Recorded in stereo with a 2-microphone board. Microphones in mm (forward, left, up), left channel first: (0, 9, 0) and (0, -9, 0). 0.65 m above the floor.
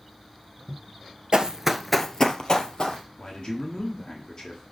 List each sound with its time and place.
1.3 s running footsteps: 45° right (ahead or behind), 0.8 m; by 3.0 s 55° left (ahead or behind), 1.6 m
3.2 s a man speaking: 45° left (ahead or behind), 1.5 m